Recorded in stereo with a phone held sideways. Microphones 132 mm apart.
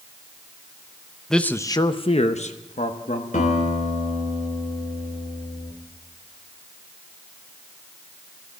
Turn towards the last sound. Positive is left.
turn(degrees=85)